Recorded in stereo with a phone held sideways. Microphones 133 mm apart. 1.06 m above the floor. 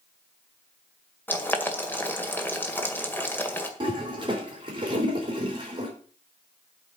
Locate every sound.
1.3 s boiling: 15° left (ahead or behind), 1.9 m
3.8 s a toilet flushing: 35° right (ahead or behind), 4 m